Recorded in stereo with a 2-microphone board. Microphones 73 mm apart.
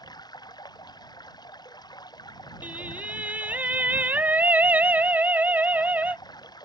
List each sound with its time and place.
0.0 s running water: 70° left (ahead or behind)
2.6 s singing: 25° right (ahead or behind)